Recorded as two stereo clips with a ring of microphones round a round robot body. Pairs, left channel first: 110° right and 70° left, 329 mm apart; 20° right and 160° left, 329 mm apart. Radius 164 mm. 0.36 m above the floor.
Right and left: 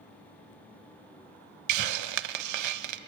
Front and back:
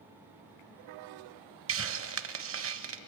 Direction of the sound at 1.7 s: 105° left.